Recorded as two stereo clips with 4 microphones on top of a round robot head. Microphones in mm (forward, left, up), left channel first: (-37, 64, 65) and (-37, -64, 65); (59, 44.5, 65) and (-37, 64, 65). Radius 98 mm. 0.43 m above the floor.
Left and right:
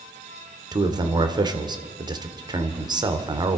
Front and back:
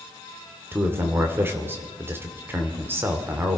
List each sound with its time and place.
0.7 s a man speaking: 130° right, 1.9 m